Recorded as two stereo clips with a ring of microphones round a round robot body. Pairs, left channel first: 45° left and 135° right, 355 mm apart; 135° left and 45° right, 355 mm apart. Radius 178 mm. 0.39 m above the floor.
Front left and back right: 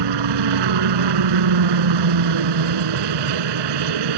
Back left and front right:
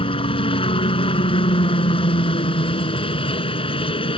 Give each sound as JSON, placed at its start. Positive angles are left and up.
{"t": 0.0, "sound": "a helicopter", "azimuth_deg": -150}